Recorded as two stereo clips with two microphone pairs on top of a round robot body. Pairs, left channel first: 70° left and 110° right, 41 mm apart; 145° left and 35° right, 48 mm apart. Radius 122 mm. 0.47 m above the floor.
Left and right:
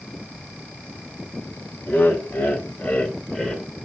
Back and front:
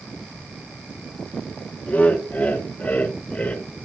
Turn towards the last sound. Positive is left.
turn(degrees=150)